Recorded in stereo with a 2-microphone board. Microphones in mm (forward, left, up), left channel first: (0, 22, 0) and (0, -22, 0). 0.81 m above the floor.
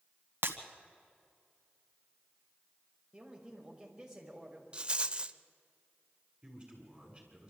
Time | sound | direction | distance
0.4 | breaking glass | 70° right (ahead or behind) | 1.5 m
3.1 | a man speaking | 15° right (ahead or behind) | 4.5 m
4.7 | a rattle | 25° right (ahead or behind) | 0.5 m
6.4 | a man speaking | 20° right (ahead or behind) | 7 m